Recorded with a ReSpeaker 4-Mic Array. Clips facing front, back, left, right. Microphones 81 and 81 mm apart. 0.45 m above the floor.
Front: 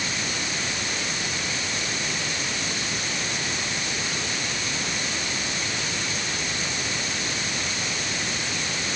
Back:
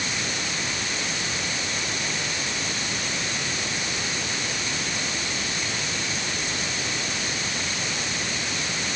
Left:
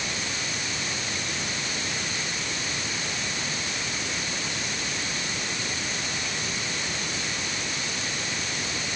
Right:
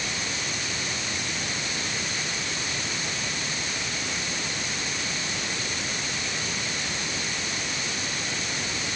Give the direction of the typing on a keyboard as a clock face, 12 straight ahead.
No typing on a keyboard in this recording.